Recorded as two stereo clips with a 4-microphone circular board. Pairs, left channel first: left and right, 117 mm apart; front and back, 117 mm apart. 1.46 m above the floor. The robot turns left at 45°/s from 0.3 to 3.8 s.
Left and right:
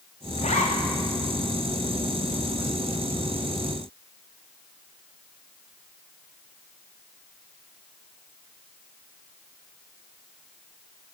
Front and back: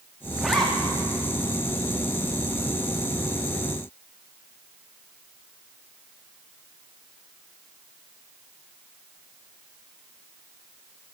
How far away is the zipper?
About 3 m.